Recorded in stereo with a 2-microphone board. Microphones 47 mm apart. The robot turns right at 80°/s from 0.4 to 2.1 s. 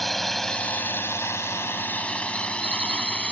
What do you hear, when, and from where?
0.0 s a drone: centre (ahead or behind); by 3.3 s 25° left (ahead or behind)